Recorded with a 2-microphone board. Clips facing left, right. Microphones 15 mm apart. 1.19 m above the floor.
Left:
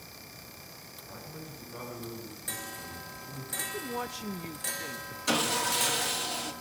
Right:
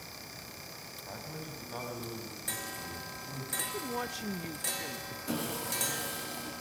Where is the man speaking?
65° right (ahead or behind), 7.5 m; by 3.5 s 80° right, 9 m.